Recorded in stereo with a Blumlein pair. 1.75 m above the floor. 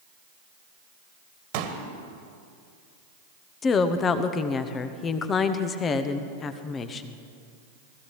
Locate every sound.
1.5 s a pop: 45° right, 1.7 m
3.6 s a woman speaking: 25° left, 1.1 m